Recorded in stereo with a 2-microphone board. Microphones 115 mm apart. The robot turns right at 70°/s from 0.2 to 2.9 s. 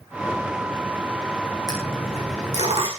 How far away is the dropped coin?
About 8.5 m.